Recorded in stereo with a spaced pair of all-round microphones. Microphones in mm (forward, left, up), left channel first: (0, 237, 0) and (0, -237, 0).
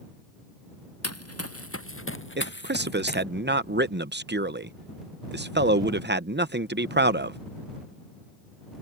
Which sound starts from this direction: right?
A man speaking, at 2.4 s.